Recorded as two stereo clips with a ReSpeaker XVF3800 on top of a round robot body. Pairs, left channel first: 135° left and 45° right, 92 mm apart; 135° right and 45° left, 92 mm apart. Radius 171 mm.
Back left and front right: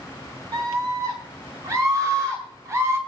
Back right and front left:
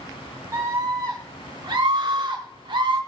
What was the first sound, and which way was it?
A scream, 10° right.